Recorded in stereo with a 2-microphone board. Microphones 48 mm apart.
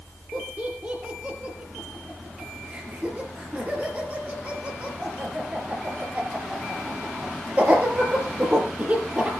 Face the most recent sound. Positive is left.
turn(degrees=-30)  # may be behind; listen again after turning